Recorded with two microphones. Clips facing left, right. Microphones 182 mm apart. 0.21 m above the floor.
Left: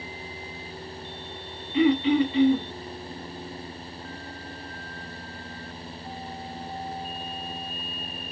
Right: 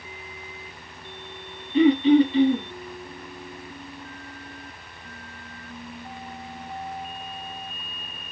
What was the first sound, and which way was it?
Throat clearing, 35° right (ahead or behind).